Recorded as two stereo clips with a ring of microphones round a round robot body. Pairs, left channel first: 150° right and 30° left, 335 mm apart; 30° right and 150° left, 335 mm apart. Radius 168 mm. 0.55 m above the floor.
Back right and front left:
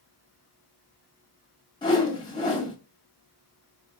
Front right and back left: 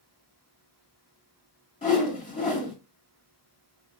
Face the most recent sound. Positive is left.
turn(degrees=-80)